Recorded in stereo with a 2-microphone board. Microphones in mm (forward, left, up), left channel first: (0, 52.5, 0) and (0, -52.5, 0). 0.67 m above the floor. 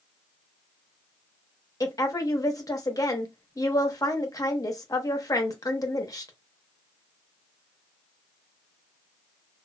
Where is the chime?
I don't hear a chime.